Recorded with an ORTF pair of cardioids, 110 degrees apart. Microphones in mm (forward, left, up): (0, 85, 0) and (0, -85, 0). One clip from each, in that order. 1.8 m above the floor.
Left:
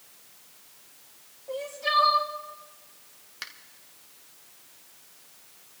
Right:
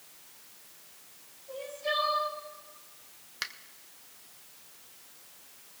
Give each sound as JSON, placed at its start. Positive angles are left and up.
{"t": 1.5, "sound": "crying", "azimuth_deg": 65, "distance_m": 3.5}
{"t": 3.4, "sound": "a finger snap", "azimuth_deg": -20, "distance_m": 1.1}